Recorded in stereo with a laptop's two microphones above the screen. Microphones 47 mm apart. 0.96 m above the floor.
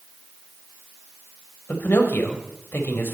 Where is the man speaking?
50° left (ahead or behind), 4 m.